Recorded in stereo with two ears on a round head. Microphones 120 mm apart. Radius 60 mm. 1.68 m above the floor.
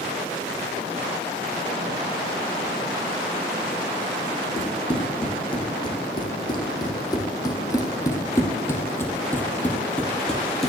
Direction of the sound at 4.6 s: 40° left (ahead or behind).